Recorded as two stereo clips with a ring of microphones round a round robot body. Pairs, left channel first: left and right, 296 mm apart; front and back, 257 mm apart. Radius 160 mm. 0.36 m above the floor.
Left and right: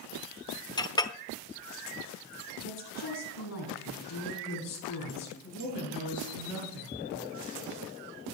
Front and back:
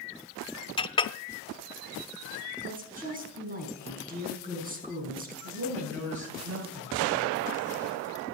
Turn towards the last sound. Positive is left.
turn(degrees=145)